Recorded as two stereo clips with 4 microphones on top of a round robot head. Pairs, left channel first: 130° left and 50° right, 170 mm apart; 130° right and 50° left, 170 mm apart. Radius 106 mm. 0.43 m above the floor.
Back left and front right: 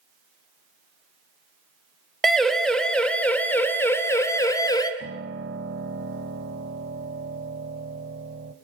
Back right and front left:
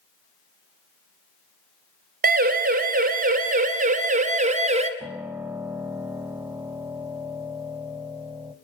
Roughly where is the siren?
Ahead left.